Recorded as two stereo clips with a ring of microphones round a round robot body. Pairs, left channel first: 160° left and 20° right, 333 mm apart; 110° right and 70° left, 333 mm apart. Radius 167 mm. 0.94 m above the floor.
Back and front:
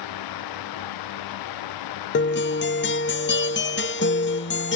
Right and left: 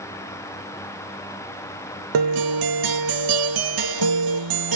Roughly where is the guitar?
Left.